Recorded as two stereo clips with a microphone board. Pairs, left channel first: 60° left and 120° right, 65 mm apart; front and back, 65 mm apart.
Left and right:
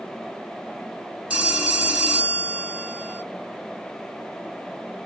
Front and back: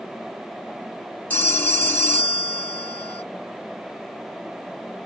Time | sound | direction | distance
1.3 | a phone ringing | 50° right | 1.1 m